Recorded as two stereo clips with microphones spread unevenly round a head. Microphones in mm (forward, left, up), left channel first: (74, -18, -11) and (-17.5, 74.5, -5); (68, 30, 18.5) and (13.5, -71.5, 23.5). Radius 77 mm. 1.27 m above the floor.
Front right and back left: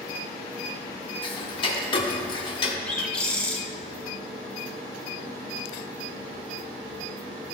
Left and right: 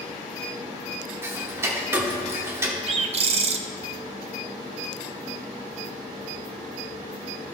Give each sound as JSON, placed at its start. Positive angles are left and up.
{"t": 1.2, "sound": "ticking", "azimuth_deg": -70, "distance_m": 1.0}
{"t": 2.9, "sound": "a bird", "azimuth_deg": -125, "distance_m": 0.6}